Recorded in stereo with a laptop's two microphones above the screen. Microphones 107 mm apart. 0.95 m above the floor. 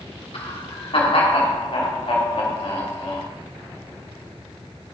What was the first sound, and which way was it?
Laughter, 65° left (ahead or behind).